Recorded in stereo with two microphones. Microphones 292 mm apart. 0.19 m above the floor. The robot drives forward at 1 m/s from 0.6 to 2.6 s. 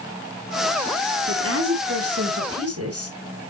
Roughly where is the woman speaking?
Right.